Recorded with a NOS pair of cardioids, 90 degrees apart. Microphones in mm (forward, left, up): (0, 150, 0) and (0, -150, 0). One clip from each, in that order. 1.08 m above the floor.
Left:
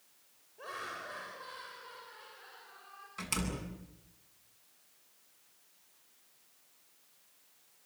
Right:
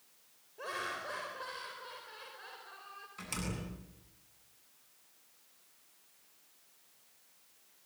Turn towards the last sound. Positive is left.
turn(degrees=40)